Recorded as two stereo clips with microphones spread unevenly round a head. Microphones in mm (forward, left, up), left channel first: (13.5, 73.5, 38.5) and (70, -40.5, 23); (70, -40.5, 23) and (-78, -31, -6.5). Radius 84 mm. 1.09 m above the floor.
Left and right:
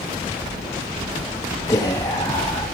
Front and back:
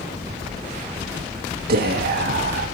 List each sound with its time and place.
1.7 s whispering: 170° right, 1.4 m